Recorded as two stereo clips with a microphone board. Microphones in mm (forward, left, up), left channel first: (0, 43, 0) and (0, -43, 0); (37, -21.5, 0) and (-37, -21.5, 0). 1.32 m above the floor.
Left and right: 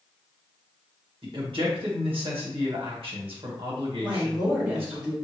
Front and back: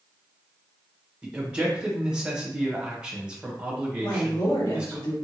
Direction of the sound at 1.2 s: 105° right.